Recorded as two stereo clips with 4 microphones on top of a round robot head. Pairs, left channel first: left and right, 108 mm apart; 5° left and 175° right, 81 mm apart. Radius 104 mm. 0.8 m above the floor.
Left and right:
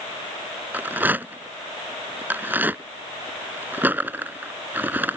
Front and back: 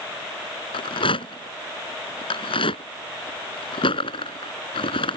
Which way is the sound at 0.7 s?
15° right.